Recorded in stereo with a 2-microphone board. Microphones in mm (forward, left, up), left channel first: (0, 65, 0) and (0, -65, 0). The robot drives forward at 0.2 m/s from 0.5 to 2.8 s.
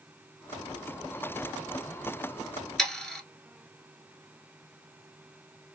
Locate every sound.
2.8 s sawing: 5° left (ahead or behind), 0.7 m